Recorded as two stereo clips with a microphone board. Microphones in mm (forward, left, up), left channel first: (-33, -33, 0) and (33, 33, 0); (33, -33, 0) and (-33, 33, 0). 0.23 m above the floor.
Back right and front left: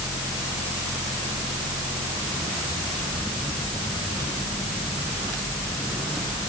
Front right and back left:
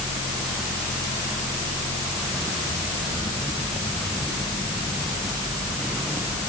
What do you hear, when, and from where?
Only background noise.